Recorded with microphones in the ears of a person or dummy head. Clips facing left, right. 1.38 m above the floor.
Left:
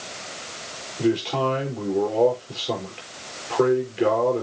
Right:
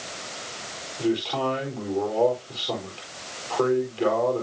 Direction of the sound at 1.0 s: 25° left (ahead or behind).